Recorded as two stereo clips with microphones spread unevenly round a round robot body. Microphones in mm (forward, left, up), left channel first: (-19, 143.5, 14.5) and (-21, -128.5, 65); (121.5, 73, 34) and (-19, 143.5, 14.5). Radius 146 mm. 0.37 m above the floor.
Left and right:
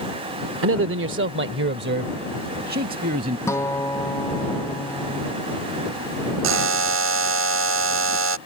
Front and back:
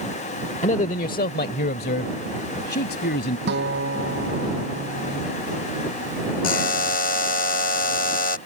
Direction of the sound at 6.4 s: 50° right.